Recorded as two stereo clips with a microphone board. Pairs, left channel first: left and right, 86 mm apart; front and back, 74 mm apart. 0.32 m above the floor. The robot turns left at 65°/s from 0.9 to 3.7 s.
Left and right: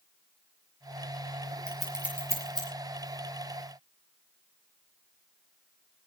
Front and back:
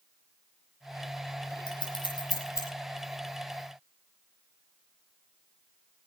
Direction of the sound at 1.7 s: 10° left.